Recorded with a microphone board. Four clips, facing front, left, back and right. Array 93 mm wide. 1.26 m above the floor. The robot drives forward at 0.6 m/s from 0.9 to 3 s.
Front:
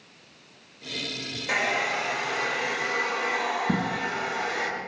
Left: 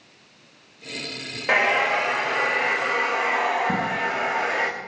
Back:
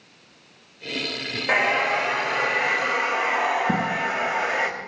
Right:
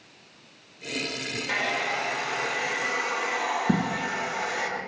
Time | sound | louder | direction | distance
1.5 | a hair dryer | left 9 dB, back 5 dB | 125° left | 2 m
3.7 | a dropped coin | left 2 dB, back 4 dB | 110° right | 1.9 m